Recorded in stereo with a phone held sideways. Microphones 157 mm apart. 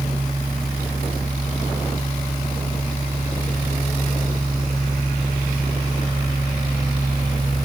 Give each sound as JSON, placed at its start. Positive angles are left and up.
{"t": 0.0, "sound": "a fan", "side_deg": -30, "distance_m": 0.9}